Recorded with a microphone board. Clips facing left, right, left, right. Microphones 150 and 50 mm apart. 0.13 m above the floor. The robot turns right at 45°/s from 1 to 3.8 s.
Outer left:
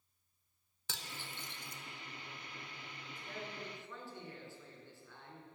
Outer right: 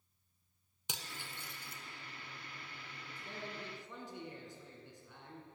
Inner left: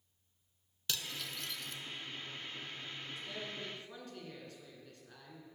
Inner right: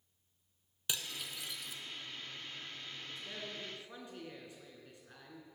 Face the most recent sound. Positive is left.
turn(degrees=-35)